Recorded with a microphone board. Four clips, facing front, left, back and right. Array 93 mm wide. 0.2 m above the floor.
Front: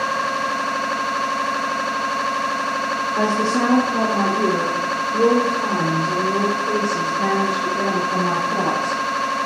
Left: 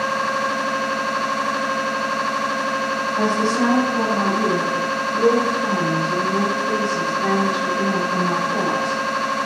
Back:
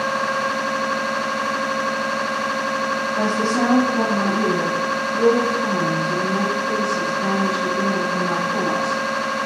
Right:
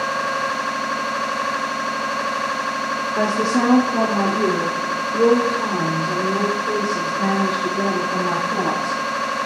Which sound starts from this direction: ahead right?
A woman speaking, at 3.2 s.